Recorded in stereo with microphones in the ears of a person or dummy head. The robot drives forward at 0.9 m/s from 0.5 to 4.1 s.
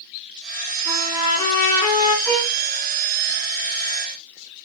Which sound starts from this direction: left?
A trumpet, at 0.8 s.